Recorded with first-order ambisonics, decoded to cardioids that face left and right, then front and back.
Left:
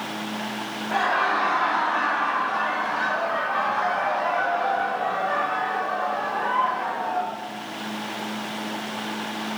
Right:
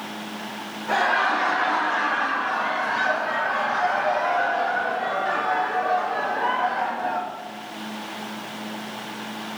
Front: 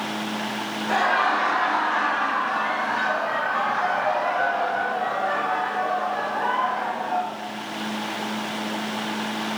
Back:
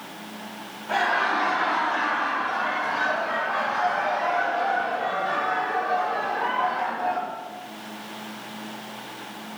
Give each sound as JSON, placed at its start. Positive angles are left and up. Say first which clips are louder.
{"t": 0.9, "sound": "laughter", "louder": "right 2 dB, front 2 dB", "azimuth_deg": -40, "distance_m": 3.0}